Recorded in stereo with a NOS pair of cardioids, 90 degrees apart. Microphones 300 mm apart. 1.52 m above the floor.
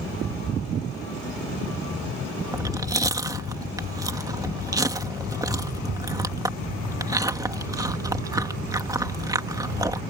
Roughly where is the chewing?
Ahead.